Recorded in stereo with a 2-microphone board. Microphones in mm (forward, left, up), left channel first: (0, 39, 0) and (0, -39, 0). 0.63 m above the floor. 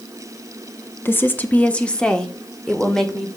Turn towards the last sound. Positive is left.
turn(degrees=5)  # may be behind; listen again after turning